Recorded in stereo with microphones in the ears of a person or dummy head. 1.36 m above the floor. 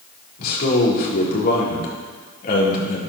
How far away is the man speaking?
About 4 m.